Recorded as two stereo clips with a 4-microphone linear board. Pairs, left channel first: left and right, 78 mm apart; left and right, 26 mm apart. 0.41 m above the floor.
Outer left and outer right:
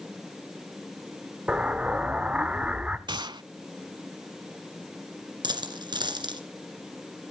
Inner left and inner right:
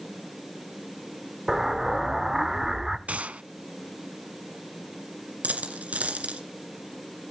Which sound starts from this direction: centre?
An explosion, at 1.5 s.